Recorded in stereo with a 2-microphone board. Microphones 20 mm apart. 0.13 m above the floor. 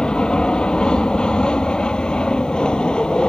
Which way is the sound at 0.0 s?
50° left (ahead or behind).